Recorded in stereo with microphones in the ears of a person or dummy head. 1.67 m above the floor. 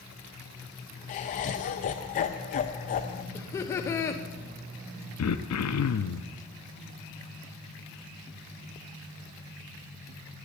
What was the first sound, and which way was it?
Laughter, 30° left (ahead or behind).